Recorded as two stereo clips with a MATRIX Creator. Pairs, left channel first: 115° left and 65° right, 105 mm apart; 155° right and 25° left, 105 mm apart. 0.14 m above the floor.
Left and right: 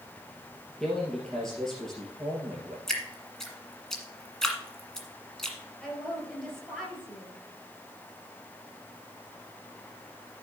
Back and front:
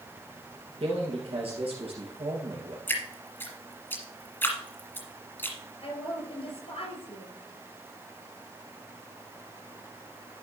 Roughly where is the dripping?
Behind.